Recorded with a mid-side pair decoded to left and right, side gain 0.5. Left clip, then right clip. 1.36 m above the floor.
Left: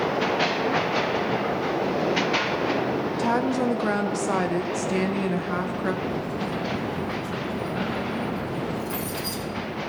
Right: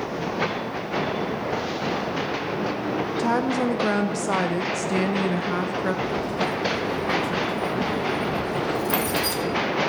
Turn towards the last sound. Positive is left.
turn(degrees=-65)